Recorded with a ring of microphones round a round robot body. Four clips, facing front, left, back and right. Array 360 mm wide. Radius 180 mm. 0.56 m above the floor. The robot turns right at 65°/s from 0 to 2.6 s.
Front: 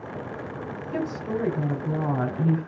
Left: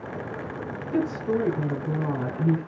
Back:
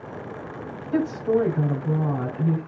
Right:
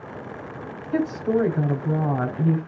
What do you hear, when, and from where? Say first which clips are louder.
0.9 s a woman speaking: right 3 dB, back 7 dB; 140° right, 3 m; by 2.7 s 30° right, 3 m